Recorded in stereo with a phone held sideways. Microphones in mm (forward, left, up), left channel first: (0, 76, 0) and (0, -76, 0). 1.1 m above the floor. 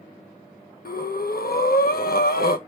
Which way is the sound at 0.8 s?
80° left.